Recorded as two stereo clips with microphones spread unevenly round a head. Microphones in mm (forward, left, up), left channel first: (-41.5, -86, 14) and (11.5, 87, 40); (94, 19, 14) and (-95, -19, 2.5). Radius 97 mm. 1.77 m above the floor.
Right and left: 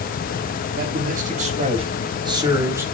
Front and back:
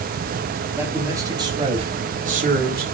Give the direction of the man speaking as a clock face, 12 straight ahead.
8 o'clock.